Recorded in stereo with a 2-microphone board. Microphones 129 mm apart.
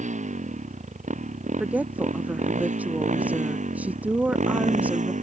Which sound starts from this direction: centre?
A woman speaking, at 1.6 s.